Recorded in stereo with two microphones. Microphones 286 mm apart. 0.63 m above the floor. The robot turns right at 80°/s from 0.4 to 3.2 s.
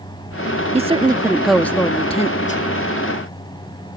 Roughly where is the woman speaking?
Right.